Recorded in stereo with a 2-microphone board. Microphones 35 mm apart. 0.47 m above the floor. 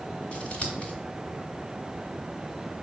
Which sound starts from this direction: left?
Scissors, at 0.3 s.